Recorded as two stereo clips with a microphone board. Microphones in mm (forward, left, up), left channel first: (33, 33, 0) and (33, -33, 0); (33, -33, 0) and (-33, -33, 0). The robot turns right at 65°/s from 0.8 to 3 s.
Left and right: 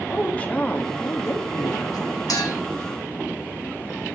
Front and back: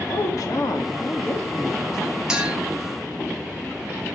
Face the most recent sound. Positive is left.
turn(degrees=145)